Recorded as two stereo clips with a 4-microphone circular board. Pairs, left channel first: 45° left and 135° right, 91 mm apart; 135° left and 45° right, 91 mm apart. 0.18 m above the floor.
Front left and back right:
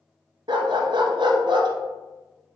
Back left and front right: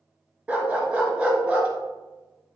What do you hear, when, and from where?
0.5 s a dog barking: 120° right, 1.3 m